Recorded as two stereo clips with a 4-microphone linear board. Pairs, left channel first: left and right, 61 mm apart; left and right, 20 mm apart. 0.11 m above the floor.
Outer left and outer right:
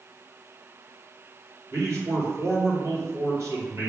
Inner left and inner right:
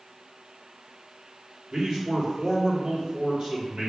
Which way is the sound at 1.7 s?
55° right (ahead or behind).